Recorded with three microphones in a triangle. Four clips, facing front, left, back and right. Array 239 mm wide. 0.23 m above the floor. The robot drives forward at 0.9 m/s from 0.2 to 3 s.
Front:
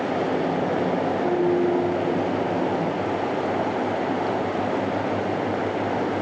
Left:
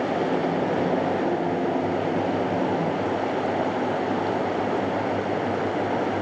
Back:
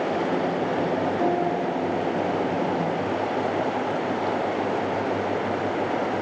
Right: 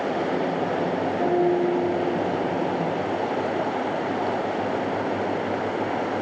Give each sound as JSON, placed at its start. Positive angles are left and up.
{"t": 1.2, "sound": "a piano", "azimuth_deg": -125, "distance_m": 9.5}